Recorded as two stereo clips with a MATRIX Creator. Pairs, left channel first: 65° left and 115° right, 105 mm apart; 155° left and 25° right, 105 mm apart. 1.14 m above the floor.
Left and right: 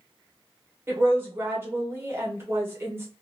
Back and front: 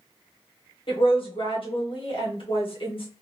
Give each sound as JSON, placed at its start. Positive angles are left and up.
{"t": 0.9, "sound": "a woman speaking", "azimuth_deg": 180, "distance_m": 1.3}